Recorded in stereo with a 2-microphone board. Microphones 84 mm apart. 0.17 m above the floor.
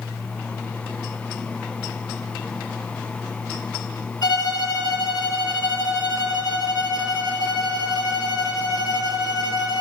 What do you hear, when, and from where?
4.2 s a violin: 60° left (ahead or behind), 0.7 m